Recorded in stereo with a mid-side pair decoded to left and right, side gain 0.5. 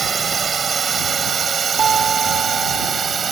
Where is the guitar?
50° right.